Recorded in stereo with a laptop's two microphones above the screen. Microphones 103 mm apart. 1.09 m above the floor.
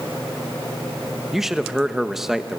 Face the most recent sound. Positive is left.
turn(degrees=-5)  # may be behind; listen again after turning